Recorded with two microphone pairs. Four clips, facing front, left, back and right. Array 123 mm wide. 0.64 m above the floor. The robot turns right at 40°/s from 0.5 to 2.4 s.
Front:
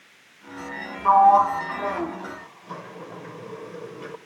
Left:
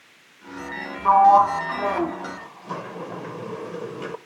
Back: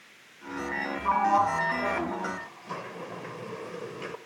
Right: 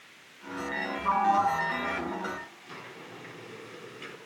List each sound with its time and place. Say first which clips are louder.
1.1 s a sliding door: left 11 dB, front 9 dB; 40° left, 0.6 m; by 4.2 s 95° left, 0.6 m